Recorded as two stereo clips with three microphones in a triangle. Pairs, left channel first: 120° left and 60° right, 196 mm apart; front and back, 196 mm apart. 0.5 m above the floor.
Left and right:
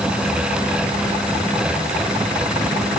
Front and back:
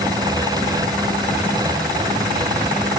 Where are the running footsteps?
No running footsteps in this recording.